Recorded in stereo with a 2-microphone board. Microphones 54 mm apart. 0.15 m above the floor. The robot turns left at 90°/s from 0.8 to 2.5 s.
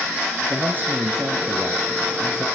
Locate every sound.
0.5 s a man speaking: 40° right, 3.5 m; by 2.5 s 170° left, 3.5 m